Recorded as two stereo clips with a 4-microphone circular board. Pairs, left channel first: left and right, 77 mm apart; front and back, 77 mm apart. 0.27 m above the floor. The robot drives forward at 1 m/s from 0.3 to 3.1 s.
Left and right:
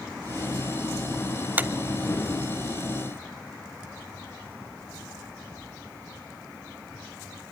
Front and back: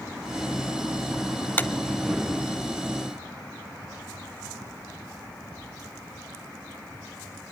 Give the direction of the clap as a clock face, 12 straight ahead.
1 o'clock.